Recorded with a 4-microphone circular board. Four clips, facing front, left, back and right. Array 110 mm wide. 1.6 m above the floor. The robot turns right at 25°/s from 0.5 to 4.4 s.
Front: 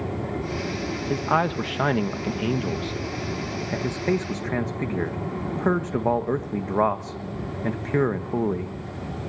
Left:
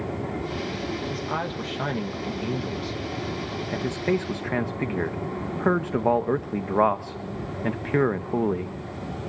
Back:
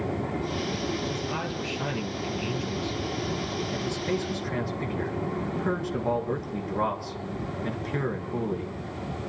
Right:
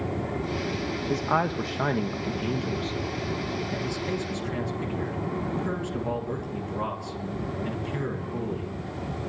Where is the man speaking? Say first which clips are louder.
Right 4 dB, front 8 dB; 30° right, 1.8 m; by 8.8 s 55° left, 1.8 m.